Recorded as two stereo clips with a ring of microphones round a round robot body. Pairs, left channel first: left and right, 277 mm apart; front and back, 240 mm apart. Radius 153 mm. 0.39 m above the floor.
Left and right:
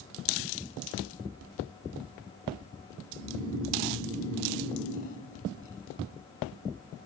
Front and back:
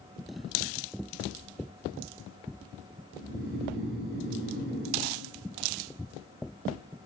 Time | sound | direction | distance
3.1 | snoring | 160° left | 1.8 m